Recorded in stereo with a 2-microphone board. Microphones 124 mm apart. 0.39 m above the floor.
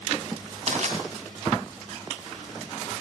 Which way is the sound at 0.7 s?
55° right (ahead or behind).